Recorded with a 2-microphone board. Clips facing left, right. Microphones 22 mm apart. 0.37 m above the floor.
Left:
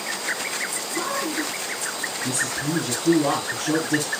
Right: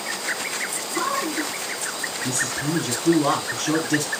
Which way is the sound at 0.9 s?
50° right (ahead or behind).